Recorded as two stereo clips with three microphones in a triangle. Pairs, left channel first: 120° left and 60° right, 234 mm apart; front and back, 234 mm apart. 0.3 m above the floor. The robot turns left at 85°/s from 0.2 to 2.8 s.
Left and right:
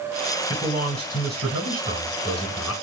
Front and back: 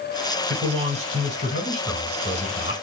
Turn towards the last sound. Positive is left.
turn(degrees=25)